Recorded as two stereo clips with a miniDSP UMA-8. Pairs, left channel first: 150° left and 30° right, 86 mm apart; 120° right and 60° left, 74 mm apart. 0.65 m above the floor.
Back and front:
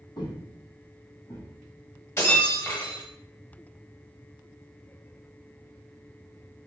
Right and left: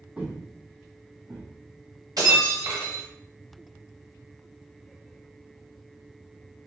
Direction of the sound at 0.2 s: 135° left.